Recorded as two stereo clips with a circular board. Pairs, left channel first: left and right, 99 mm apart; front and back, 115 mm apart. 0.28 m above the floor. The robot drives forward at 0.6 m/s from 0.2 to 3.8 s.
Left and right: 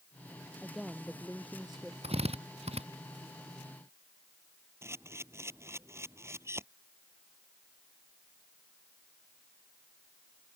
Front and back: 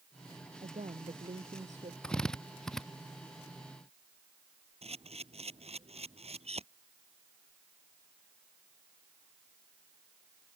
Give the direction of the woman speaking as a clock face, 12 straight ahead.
6 o'clock.